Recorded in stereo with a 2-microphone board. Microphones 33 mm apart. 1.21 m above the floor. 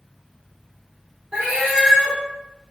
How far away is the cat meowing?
About 1.2 m.